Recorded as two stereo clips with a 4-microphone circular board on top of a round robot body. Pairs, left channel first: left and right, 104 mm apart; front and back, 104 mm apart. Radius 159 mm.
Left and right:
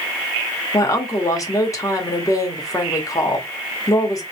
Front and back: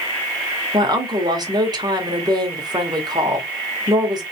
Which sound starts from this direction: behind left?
A woman speaking, at 0.7 s.